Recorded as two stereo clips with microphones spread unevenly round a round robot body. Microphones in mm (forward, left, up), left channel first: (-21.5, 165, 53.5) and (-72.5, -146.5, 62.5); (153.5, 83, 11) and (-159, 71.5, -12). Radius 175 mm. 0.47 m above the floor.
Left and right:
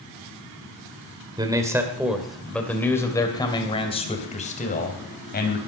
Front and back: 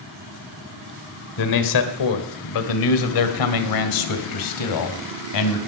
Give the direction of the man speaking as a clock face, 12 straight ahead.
1 o'clock.